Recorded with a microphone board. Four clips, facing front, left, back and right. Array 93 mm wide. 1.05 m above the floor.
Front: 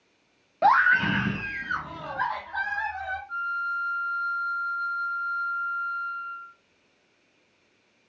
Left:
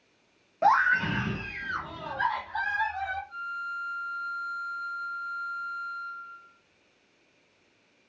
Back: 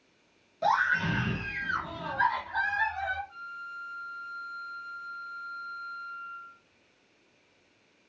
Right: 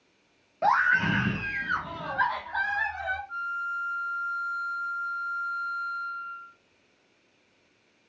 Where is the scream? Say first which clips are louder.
Even, front 7 dB; 15° left, 0.5 m; by 3.2 s 85° right, 1.3 m.